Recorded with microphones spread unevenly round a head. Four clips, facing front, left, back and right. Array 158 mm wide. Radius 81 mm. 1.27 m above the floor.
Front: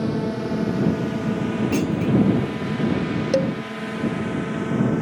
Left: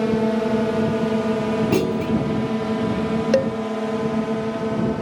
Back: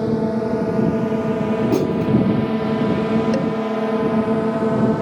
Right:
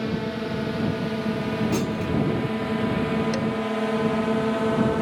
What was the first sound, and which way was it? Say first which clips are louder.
A drone: left 8 dB, back 5 dB; 130° left.